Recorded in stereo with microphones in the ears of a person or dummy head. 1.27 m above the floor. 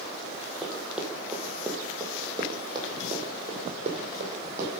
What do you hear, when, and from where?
0.6 s running footsteps: centre (ahead or behind), 2.5 m; by 4.7 s 45° right (ahead or behind), 3 m